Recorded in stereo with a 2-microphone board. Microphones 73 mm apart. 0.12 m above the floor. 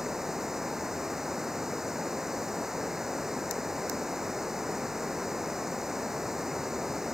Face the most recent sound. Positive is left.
turn(degrees=-5)  # may be behind; listen again after turning